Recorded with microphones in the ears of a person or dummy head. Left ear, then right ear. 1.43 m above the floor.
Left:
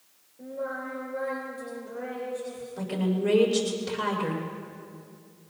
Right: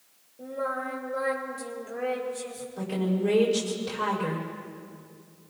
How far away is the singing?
About 3.5 m.